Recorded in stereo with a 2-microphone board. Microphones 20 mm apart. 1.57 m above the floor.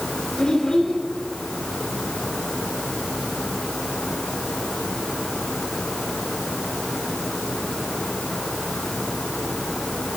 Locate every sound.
0.4 s a child speaking: 30° left (ahead or behind), 4.5 m